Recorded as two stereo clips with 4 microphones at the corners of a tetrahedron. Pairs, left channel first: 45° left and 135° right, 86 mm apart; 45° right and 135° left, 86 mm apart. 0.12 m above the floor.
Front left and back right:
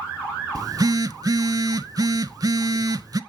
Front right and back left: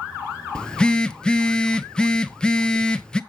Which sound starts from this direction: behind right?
A phone buzzing, at 0.6 s.